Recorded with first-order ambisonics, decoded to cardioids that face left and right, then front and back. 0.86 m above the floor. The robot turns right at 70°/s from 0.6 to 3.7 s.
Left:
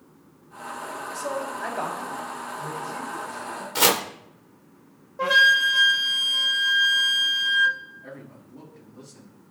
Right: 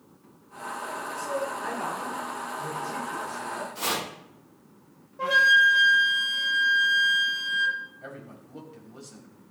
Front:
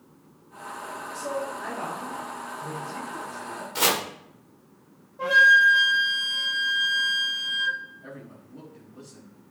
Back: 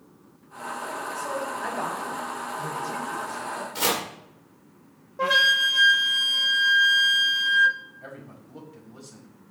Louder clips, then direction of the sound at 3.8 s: Left 10 dB, front 2 dB; 75° left.